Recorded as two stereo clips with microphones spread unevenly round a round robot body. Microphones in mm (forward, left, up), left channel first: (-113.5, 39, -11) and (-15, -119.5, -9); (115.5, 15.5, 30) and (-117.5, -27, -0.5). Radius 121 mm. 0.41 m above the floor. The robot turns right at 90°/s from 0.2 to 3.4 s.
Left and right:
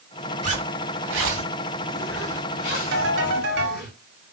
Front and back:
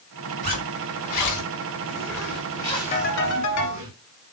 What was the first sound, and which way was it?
A zipper, 110° right.